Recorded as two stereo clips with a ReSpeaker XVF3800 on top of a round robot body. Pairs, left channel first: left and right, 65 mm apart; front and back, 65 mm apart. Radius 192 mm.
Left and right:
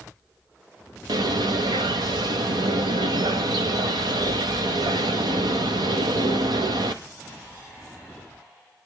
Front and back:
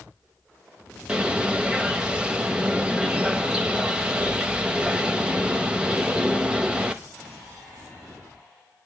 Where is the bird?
105° right, 0.5 m.